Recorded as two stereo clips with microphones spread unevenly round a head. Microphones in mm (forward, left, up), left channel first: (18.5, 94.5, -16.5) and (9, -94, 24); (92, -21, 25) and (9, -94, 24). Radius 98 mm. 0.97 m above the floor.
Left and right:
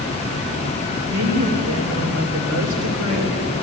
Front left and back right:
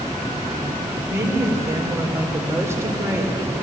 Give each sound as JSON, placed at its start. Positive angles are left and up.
{"t": 1.1, "sound": "a woman speaking", "azimuth_deg": -75, "distance_m": 3.5}